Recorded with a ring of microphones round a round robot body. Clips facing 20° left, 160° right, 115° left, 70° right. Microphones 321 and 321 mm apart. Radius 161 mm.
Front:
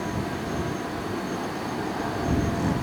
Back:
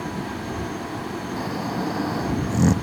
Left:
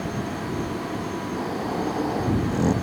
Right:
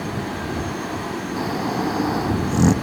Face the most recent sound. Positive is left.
turn(degrees=-125)